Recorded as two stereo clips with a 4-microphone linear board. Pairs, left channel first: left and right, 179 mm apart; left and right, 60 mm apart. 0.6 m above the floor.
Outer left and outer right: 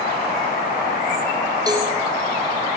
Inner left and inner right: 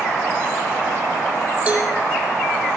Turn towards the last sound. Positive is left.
turn(degrees=-20)  # may be behind; listen again after turning